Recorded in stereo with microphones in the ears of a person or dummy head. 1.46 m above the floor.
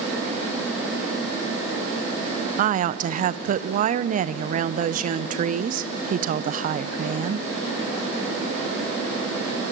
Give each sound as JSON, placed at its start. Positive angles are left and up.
{"t": 2.6, "sound": "a woman speaking", "side_deg": -45, "distance_m": 0.6}